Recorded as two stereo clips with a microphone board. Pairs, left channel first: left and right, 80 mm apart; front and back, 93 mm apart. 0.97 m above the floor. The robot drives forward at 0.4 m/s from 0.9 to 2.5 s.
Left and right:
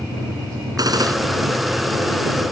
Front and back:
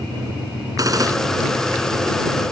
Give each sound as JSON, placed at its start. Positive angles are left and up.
{"t": 0.8, "sound": "a gunshot", "azimuth_deg": -130}